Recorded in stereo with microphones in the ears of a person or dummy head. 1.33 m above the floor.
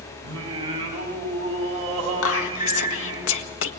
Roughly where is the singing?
Right.